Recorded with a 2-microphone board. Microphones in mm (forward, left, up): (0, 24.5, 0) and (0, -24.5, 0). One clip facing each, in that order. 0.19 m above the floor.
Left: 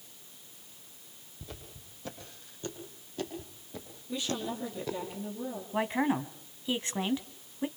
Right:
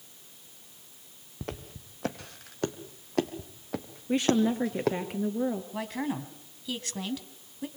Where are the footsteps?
65° right (ahead or behind), 3.5 m.